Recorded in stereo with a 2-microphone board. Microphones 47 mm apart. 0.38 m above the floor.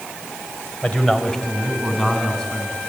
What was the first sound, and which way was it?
A man speaking, 25° left (ahead or behind).